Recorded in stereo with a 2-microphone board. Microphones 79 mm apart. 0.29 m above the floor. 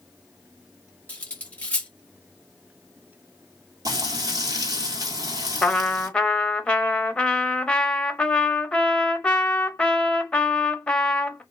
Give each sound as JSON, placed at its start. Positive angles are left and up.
{"t": 1.1, "sound": "cutlery clinking", "side_deg": 15, "distance_m": 0.6}
{"t": 3.9, "sound": "frying", "side_deg": -50, "distance_m": 1.0}
{"t": 5.6, "sound": "a trumpet", "side_deg": 15, "distance_m": 0.6}